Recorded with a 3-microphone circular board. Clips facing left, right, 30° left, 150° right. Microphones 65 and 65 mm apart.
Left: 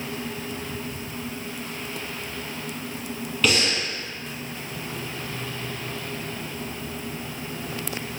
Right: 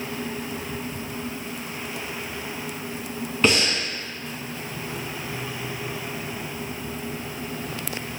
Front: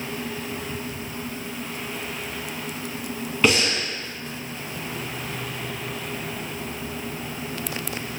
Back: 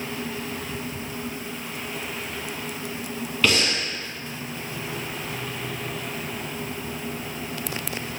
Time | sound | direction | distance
3.4 | breathing | 35° right | 0.7 m